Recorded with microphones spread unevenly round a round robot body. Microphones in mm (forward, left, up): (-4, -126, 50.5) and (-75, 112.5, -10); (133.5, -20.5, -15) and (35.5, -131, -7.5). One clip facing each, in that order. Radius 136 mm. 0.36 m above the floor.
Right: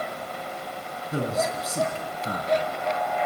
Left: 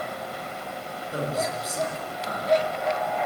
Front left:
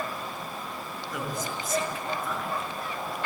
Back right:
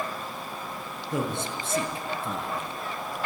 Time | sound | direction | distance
1.1 | a man speaking | 70° right | 4 m